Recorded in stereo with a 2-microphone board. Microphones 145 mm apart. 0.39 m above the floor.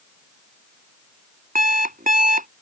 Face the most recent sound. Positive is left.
turn(degrees=-70)  # may be behind; listen again after turning